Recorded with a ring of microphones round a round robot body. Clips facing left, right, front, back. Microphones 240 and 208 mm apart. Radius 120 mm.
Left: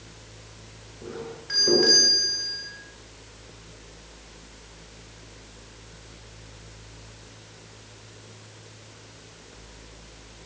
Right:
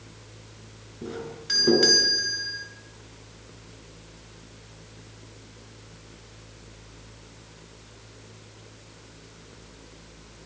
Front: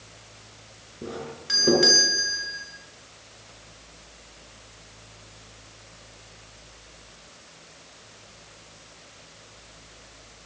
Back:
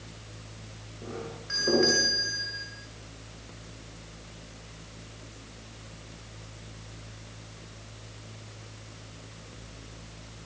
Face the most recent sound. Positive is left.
turn(degrees=-55)